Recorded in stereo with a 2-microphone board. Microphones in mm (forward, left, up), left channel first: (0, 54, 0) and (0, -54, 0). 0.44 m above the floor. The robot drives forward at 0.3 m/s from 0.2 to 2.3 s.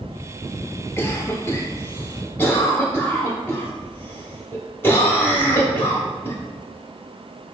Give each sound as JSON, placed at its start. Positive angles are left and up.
{"t": 1.0, "sound": "a cough", "side_deg": 25, "distance_m": 0.8}